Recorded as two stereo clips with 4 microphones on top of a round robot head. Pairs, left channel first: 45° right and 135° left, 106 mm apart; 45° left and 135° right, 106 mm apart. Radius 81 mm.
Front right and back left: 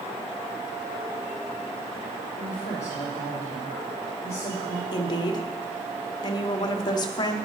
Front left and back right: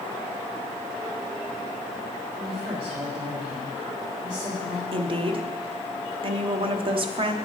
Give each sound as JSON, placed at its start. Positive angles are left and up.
{"t": 2.4, "sound": "a woman speaking", "azimuth_deg": -115, "distance_m": 4.5}
{"t": 4.9, "sound": "a woman speaking", "azimuth_deg": -95, "distance_m": 0.9}